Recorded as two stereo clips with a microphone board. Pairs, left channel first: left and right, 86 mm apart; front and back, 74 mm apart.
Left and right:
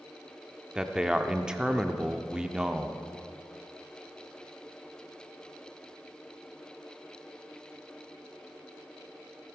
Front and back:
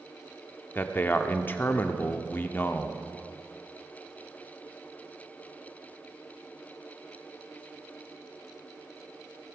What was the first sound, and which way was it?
A man speaking, 15° right.